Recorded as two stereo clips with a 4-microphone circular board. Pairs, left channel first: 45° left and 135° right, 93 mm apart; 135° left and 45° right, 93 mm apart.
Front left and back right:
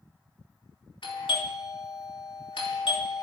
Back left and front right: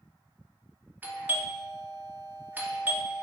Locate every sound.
1.0 s a doorbell: 25° left, 3 m